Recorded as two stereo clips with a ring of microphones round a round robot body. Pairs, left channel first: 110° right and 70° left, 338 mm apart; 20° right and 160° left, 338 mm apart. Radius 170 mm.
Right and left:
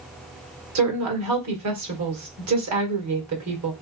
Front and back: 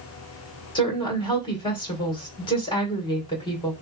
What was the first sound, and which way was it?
A woman speaking, 50° left.